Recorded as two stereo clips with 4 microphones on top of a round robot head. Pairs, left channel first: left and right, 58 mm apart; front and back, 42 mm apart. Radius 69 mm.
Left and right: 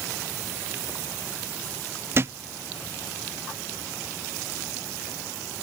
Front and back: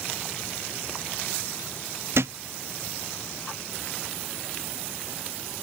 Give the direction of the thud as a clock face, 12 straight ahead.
5 o'clock.